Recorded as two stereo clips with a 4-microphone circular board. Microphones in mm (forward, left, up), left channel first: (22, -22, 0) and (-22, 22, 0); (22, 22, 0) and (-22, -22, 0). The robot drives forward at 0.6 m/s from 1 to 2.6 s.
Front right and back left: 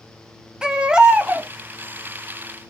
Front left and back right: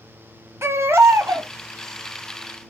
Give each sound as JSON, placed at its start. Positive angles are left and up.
{"t": 0.6, "sound": "a baby crying", "azimuth_deg": -155, "distance_m": 0.6}